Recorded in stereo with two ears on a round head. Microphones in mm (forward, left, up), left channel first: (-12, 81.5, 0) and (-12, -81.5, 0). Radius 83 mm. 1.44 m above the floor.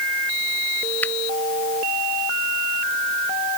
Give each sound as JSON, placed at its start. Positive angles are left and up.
{"t": 1.0, "sound": "a finger snap", "side_deg": 10}